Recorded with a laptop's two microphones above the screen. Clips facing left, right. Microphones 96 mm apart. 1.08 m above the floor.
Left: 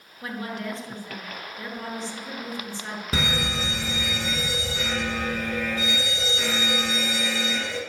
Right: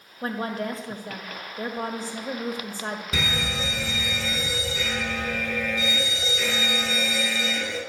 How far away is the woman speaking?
About 1.8 m.